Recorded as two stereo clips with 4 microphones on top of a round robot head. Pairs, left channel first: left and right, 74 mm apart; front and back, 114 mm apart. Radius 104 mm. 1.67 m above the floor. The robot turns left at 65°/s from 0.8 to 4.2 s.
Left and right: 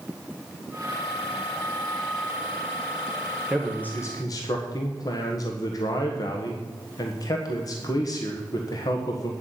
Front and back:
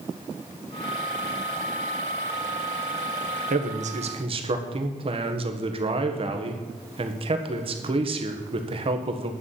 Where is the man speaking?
175° right, 1.3 m; by 9.3 s 140° left, 1.3 m.